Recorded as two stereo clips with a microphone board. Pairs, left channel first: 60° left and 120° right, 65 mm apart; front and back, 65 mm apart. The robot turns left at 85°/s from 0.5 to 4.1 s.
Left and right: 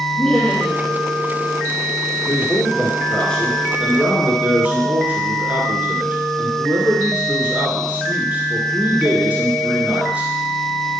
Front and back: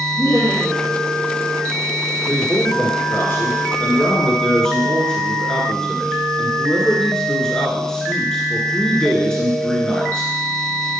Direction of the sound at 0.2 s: 20° right.